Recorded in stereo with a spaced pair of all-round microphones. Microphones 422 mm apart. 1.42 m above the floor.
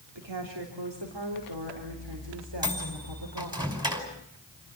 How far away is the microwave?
About 5 m.